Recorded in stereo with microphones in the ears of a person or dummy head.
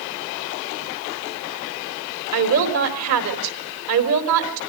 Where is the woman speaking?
85° right, 4 m.